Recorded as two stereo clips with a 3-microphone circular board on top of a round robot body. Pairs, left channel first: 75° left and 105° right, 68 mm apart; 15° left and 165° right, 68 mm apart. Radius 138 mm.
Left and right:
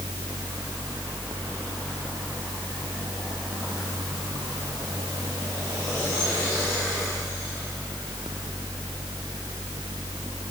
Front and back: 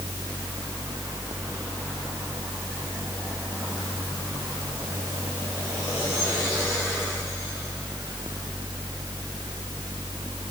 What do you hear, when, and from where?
Only background noise.